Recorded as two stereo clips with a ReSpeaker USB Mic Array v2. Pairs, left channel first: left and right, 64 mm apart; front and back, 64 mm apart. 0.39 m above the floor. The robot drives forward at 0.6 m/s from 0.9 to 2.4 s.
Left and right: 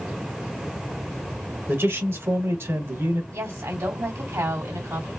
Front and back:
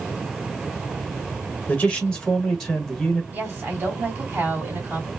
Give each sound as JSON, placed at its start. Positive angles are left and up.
{"t": 1.7, "sound": "a man speaking", "azimuth_deg": -60, "distance_m": 1.5}
{"t": 3.3, "sound": "a woman speaking", "azimuth_deg": -125, "distance_m": 2.5}